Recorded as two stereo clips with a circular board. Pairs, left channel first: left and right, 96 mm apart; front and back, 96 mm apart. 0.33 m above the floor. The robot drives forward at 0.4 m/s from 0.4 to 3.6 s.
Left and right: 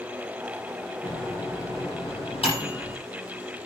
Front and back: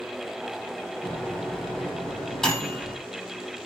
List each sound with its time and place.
1.0 s a microwave: 80° left, 8 m; by 3.0 s 85° left, 7.5 m